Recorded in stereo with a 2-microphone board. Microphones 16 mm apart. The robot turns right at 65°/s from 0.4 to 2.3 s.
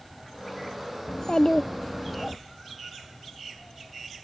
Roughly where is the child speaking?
Left.